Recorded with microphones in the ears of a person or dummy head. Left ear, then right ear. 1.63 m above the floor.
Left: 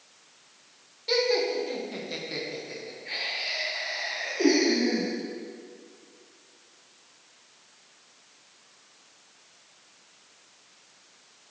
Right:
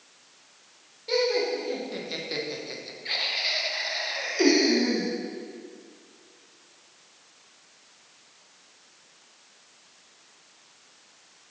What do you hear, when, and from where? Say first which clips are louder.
1.1 s laughter: even; 20° left (ahead or behind), 1.2 m; by 5.1 s 70° right (ahead or behind), 2 m